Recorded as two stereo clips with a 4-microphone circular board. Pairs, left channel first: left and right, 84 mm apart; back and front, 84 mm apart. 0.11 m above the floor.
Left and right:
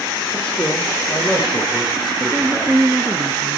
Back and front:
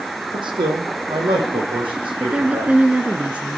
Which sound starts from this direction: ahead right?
A woman speaking, at 2.2 s.